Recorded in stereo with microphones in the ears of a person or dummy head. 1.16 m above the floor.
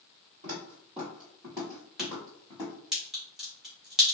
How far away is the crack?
About 1.3 m.